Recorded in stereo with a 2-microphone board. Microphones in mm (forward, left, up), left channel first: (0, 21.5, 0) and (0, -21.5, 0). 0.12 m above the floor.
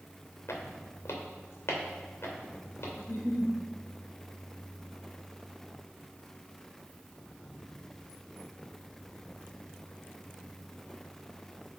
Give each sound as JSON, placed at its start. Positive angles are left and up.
{"t": 0.5, "sound": "footsteps", "side_deg": 75, "distance_m": 1.7}
{"t": 3.0, "sound": "a giggle", "side_deg": 60, "distance_m": 2.0}